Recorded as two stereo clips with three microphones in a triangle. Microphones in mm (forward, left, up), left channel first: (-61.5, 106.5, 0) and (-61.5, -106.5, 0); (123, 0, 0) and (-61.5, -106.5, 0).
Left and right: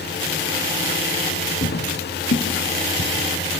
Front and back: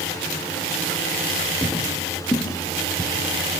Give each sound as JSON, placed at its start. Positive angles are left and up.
{"t": 1.6, "sound": "footsteps", "azimuth_deg": 110, "distance_m": 2.0}